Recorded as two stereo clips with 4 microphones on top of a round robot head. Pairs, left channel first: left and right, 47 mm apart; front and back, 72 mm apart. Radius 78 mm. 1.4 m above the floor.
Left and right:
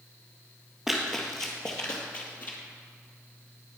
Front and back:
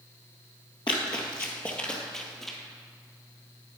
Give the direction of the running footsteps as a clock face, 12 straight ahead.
12 o'clock.